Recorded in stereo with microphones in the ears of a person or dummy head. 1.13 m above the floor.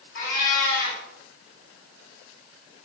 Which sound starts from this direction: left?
A cat meowing, at 0.1 s.